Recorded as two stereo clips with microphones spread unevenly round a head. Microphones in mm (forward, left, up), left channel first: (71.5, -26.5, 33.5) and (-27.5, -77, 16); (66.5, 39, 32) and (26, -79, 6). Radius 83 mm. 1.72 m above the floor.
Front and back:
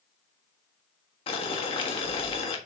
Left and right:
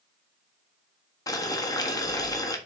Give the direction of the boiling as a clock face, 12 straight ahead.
11 o'clock.